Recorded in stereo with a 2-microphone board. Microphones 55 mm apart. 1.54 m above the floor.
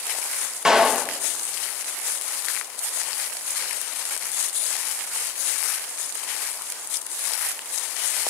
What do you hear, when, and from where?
0.7 s a clap: 15° right (ahead or behind), 1.9 m